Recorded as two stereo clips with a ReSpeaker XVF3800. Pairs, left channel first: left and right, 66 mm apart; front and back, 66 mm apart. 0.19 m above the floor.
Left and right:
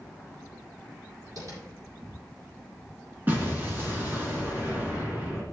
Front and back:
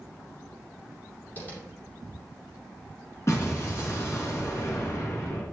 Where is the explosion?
35° right, 3 m.